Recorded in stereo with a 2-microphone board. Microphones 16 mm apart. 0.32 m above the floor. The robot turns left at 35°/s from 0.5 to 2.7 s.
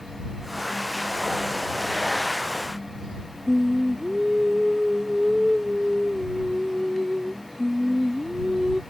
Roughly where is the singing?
Right.